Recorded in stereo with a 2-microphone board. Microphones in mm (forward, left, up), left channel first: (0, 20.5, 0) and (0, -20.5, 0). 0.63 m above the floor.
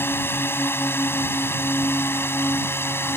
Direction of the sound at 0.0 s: 60° left (ahead or behind).